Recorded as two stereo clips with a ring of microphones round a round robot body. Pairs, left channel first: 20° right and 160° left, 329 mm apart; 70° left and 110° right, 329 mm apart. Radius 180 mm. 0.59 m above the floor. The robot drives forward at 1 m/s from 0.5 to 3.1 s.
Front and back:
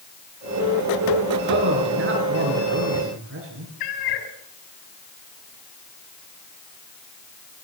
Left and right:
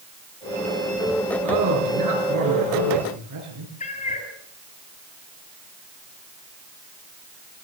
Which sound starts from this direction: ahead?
A cat meowing, at 3.8 s.